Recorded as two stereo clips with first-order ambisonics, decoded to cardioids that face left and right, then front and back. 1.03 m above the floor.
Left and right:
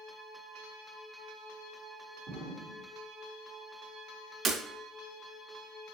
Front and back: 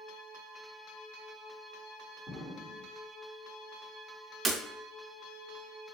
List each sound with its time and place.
2.3 s an explosion: 85° right, 2.5 m
4.5 s breaking glass: 120° right, 0.7 m